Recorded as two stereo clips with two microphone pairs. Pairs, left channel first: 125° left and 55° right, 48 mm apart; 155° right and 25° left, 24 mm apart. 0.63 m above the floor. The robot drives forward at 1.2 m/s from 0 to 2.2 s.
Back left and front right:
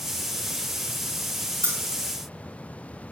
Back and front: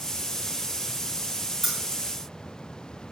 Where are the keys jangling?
70° right, 1.6 m; by 2.1 s 90° right, 1.5 m.